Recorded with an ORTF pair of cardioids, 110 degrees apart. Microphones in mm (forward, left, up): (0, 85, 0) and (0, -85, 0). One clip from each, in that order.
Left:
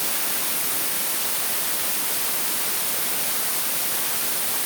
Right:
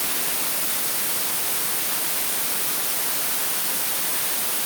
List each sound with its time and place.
Only background noise.